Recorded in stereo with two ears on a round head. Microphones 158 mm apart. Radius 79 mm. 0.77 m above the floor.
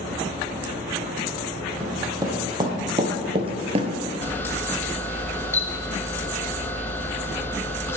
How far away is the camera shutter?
About 0.8 m.